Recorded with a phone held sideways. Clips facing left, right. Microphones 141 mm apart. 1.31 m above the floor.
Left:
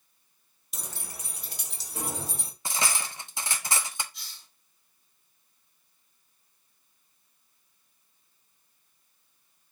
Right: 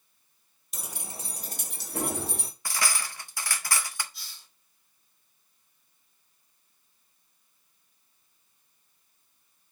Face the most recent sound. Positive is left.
turn(degrees=-5)  # may be behind; listen again after turning